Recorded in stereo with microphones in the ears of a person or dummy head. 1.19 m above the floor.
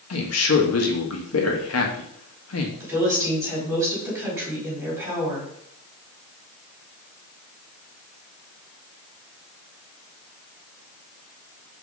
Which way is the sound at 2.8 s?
15° right (ahead or behind).